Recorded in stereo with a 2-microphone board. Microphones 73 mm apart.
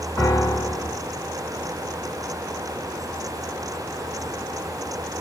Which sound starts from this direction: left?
A piano, at 0.2 s.